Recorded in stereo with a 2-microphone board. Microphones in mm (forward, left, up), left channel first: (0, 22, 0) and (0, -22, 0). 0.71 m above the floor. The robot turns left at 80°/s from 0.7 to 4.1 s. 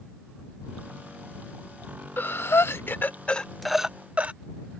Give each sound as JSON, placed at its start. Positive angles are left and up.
{"t": 2.2, "sound": "breathing", "side_deg": 50}